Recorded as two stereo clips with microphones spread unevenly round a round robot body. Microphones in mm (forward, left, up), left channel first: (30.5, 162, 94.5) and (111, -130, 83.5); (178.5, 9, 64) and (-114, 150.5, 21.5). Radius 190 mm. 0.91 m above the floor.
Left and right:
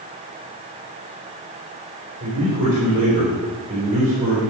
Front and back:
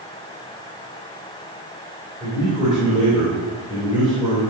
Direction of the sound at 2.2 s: 145° right.